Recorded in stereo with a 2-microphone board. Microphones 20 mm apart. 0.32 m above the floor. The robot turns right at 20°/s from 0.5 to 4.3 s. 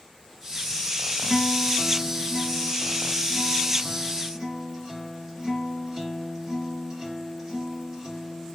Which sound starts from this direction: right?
A guitar, at 1.2 s.